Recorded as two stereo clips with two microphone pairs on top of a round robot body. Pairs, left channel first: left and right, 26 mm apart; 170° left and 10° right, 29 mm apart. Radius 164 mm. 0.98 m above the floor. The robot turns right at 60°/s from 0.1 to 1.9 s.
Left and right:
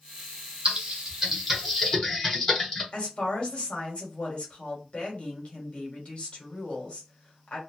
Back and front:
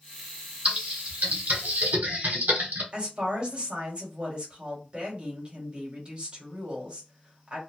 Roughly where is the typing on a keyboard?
Ahead right.